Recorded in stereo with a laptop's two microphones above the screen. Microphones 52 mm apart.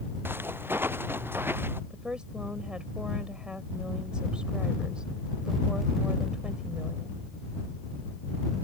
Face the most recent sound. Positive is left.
turn(degrees=-20)  # may be behind; listen again after turning